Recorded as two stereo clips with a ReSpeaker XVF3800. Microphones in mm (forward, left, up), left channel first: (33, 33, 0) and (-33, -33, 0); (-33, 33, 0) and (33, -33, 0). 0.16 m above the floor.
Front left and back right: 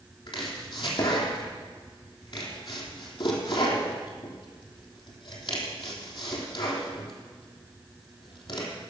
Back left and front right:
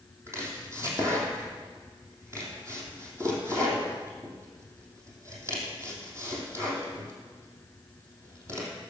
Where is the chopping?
15° left, 2.5 m.